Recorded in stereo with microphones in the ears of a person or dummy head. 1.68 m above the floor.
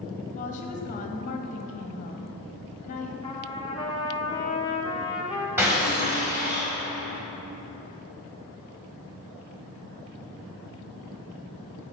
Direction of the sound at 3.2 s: 25° left (ahead or behind).